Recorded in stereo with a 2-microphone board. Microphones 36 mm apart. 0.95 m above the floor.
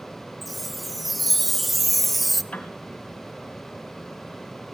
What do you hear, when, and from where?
0.4 s a chime: centre (ahead or behind), 0.7 m
2.5 s a piano: 35° left (ahead or behind), 2.5 m